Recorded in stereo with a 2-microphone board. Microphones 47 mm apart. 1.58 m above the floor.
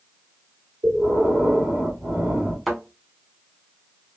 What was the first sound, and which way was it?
Breathing, 45° right (ahead or behind).